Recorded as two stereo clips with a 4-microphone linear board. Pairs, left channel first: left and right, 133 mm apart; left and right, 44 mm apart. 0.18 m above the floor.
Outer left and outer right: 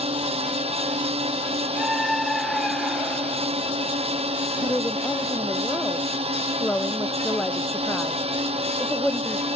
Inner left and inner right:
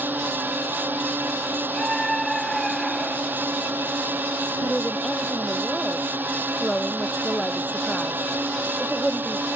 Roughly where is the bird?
I don't hear a bird.